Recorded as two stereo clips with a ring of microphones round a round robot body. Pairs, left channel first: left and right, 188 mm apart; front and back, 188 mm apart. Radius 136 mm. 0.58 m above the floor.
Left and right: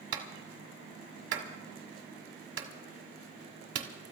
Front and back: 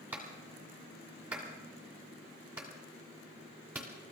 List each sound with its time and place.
0.1 s a clap: 95° right, 1.7 m